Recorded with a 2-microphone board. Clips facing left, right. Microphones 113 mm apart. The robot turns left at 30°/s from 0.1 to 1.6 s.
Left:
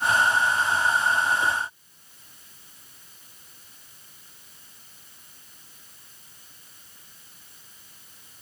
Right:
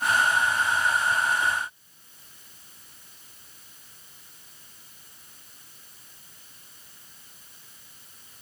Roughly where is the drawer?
I don't hear a drawer.